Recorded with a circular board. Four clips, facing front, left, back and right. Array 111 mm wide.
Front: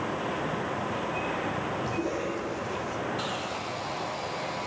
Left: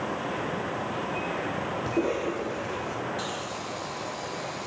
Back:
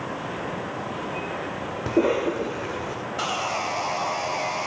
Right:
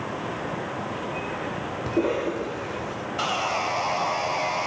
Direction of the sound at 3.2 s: 125° right.